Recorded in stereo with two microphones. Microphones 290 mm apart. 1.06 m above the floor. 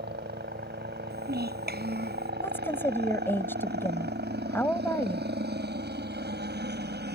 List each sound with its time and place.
0.0 s a helicopter: 35° right (ahead or behind)
1.1 s a child speaking: 35° right (ahead or behind)
2.4 s a woman speaking: 5° left (ahead or behind)